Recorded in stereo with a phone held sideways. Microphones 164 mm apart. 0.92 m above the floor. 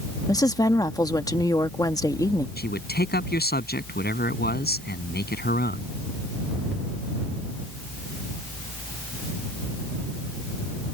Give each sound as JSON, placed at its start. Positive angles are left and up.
{"t": 0.3, "sound": "a woman speaking", "side_deg": 20}
{"t": 2.6, "sound": "a man speaking", "side_deg": 80}